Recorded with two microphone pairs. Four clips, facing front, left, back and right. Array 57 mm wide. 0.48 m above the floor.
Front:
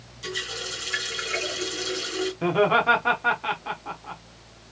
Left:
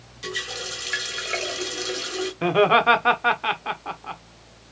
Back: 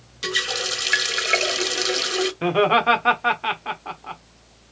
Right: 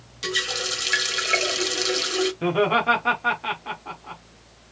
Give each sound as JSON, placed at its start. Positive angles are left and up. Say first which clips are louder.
{"t": 0.2, "sound": "a running tap", "louder": "right 4 dB, back 7 dB", "azimuth_deg": -170, "distance_m": 1.2}
{"t": 2.4, "sound": "laughter", "louder": "left 5 dB, back 2 dB", "azimuth_deg": 125, "distance_m": 1.0}